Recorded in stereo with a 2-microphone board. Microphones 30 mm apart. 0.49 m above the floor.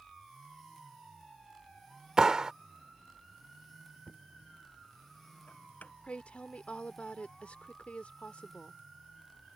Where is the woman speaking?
50° left (ahead or behind).